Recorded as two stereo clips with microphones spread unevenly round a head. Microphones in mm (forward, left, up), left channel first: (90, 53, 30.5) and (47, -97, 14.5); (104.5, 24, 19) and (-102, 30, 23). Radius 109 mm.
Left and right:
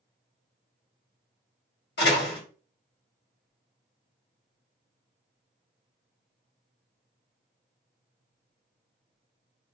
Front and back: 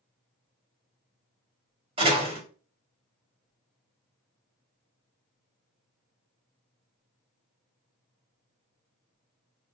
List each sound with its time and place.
2.0 s a door slam: 115° left, 1.7 m